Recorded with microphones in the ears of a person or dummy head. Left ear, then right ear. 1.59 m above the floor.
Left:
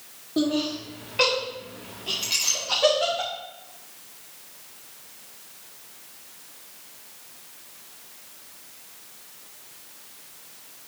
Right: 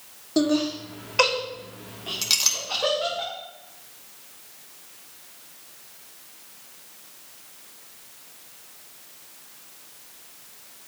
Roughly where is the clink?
Right.